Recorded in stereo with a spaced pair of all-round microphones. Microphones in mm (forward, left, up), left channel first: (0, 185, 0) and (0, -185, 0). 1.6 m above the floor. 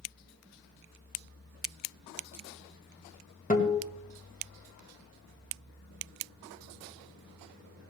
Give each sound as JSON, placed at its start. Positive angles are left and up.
{"t": 3.5, "sound": "a guitar", "side_deg": 20, "distance_m": 1.8}